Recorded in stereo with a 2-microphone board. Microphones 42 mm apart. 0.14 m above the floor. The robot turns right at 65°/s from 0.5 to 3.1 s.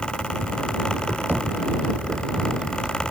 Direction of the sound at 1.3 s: 50° right (ahead or behind).